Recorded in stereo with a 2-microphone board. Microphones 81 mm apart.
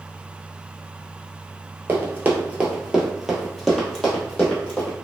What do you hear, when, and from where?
1.9 s running footsteps: 35° right (ahead or behind), 1.0 m; by 5.0 s 15° left (ahead or behind), 1.7 m